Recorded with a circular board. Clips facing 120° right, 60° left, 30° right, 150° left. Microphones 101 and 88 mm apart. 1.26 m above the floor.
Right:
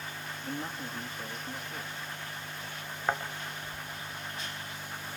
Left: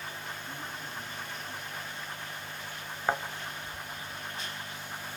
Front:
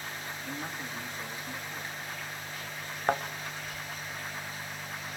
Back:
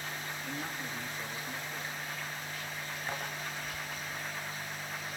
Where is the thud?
20° right, 2.0 m.